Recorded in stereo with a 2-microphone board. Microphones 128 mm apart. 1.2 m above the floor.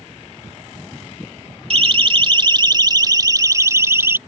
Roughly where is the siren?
Right.